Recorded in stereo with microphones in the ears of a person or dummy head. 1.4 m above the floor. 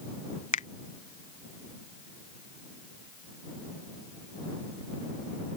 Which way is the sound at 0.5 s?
35° left (ahead or behind).